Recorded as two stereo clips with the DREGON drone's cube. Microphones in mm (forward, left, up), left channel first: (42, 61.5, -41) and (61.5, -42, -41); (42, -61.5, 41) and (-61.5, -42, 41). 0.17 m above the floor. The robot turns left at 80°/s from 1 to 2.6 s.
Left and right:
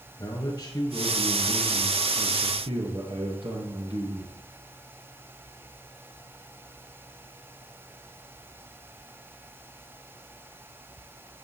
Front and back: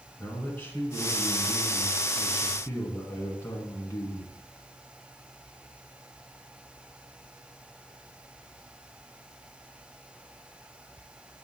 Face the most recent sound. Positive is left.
turn(degrees=-70)